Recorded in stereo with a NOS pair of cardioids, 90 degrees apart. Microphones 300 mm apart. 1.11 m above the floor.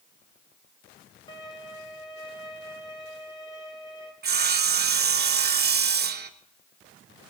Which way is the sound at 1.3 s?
15° left.